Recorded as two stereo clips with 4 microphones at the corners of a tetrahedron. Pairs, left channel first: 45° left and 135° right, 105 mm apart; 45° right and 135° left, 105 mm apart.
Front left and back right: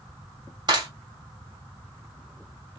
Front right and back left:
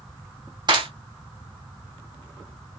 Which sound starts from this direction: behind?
A clap, at 0.7 s.